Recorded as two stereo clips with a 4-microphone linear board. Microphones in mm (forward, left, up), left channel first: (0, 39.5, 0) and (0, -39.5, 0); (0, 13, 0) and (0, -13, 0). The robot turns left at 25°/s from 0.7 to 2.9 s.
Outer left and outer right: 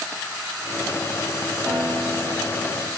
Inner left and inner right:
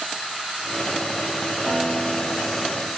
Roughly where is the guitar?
Behind right.